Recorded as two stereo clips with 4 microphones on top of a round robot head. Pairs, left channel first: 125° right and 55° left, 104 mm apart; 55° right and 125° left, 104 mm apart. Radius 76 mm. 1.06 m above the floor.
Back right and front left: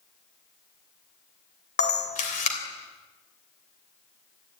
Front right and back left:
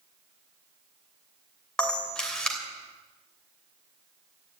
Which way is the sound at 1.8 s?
135° right.